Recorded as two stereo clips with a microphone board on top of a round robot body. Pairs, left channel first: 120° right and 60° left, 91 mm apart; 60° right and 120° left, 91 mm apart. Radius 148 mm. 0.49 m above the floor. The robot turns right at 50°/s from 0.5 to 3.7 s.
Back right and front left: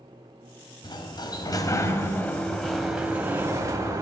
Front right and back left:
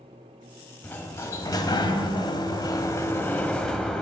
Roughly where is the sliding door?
Behind right.